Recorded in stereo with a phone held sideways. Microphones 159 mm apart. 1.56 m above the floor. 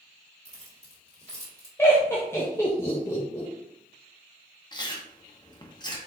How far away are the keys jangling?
About 1.6 m.